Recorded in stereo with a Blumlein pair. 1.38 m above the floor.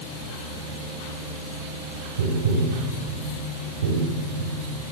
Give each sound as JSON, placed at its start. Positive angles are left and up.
{"t": 2.2, "sound": "tapping", "azimuth_deg": -60, "distance_m": 6.0}